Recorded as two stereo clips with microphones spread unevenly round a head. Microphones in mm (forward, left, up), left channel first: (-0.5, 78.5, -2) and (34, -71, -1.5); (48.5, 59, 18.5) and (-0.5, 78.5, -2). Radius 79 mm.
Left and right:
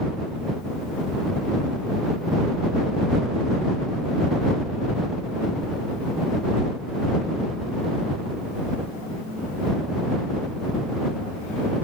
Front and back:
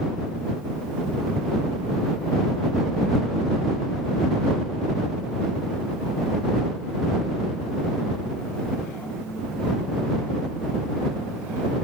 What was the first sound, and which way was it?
Only background noise.